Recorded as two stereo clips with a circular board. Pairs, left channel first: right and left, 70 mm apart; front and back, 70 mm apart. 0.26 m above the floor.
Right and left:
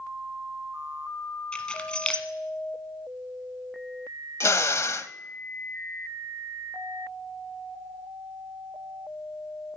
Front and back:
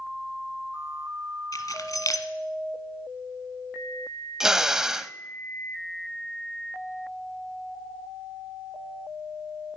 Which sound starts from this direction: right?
A drill, at 4.4 s.